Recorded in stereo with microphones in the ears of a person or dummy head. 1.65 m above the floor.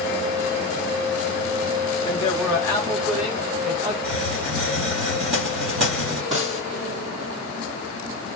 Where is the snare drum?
35° right (ahead or behind), 1.5 m.